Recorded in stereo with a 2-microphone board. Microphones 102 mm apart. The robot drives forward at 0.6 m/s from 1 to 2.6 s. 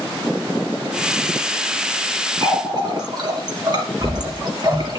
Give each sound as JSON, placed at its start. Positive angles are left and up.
{"t": 2.4, "sound": "a running tap", "side_deg": -45, "distance_m": 3.0}